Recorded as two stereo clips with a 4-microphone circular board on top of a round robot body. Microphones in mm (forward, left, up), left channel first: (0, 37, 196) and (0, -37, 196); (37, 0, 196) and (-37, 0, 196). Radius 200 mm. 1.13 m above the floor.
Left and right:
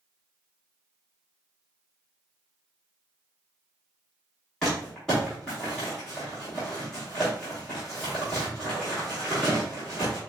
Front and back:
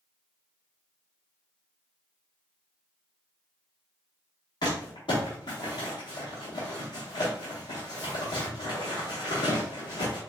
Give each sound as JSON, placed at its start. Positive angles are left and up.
{"t": 4.6, "sound": "crumpling", "azimuth_deg": 10, "distance_m": 0.8}